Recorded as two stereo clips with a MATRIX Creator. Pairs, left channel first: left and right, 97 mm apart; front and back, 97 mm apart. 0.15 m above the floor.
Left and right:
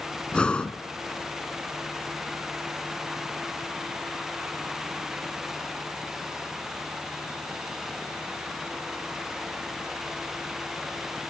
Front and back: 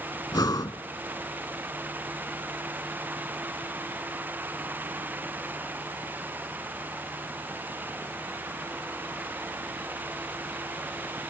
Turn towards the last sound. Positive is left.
turn(degrees=15)